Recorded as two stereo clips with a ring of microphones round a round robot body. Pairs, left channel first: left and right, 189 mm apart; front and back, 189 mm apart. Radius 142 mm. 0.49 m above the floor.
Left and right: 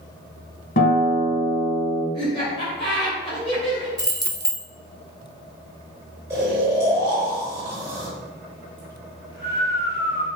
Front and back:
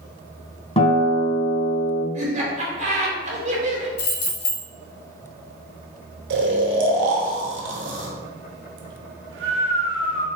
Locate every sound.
0.8 s a guitar: 60° left, 1.1 m
2.1 s laughter: 145° left, 1.6 m
4.0 s keys jangling: 20° right, 1.1 m
6.3 s snoring: 170° right, 0.7 m